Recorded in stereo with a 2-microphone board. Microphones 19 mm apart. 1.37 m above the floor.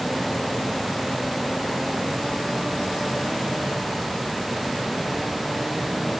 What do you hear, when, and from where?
Only background noise.